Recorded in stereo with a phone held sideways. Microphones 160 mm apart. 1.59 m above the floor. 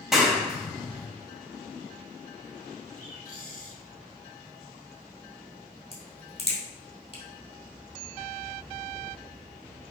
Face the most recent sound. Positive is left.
turn(degrees=40)  # may be behind; listen again after turning